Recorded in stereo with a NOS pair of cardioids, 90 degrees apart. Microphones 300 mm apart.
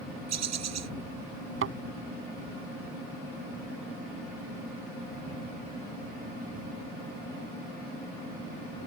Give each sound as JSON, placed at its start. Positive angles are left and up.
{"t": 0.3, "sound": "a bird", "azimuth_deg": -60}
{"t": 1.6, "sound": "a thud", "azimuth_deg": -45}